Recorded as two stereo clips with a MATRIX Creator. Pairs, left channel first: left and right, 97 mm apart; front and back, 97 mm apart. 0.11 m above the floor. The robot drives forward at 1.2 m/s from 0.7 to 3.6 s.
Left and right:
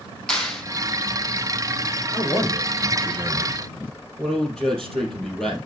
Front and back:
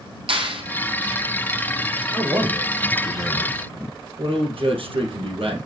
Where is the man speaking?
165° left, 1.7 m; by 5.6 s 175° left, 3 m.